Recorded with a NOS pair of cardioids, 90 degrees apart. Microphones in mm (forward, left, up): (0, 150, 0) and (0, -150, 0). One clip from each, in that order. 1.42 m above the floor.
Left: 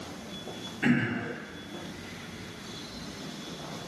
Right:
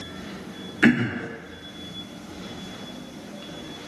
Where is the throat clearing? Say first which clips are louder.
Right 7 dB; 45° right, 0.6 m.